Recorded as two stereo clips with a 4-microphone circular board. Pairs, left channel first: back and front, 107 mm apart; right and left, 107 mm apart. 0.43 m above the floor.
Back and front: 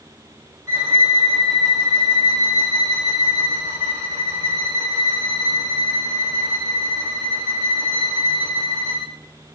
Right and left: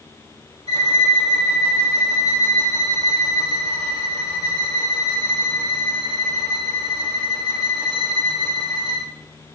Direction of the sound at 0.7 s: 65° left.